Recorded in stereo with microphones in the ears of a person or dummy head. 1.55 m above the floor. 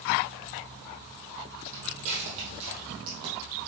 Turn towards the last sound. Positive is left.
turn(degrees=-25)  # may be behind; listen again after turning